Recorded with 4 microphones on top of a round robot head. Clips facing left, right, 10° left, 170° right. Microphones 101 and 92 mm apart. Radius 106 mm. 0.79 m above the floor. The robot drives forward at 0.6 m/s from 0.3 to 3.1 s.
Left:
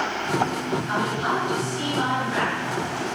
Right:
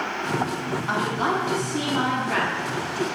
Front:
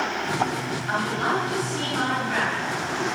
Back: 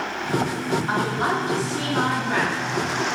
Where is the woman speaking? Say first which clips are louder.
Right 3 dB, front 2 dB; 105° right, 9.5 m; by 3.1 s 110° right, 9.5 m.